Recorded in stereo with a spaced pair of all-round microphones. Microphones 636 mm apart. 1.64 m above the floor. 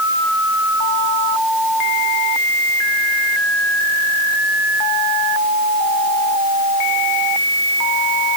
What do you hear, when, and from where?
Only background noise.